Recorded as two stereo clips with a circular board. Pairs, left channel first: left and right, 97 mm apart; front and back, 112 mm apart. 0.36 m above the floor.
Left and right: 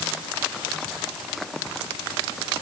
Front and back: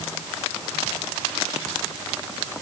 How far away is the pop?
I don't hear a pop.